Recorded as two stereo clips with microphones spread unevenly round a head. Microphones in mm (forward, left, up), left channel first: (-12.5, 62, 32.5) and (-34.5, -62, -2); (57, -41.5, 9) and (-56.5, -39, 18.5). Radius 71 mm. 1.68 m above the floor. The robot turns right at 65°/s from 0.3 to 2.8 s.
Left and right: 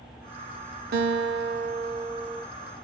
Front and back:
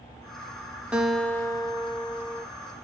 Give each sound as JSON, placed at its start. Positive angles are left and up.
{"t": 0.9, "sound": "a guitar", "azimuth_deg": -105, "distance_m": 0.7}